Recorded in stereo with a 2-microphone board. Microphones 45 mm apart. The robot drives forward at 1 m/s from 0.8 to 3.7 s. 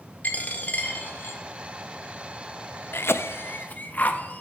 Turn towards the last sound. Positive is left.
turn(degrees=40)  # may be behind; listen again after turning